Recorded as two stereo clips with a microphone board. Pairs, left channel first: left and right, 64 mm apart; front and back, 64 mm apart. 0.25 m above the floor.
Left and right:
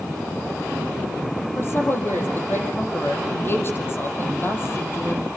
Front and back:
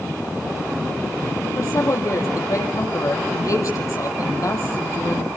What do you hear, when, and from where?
1.6 s a woman speaking: 35° left, 6.5 m